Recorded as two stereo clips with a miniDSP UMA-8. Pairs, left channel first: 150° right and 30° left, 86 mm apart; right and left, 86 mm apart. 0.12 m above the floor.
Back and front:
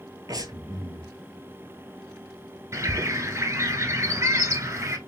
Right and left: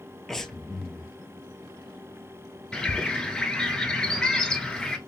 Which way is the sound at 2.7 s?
10° right.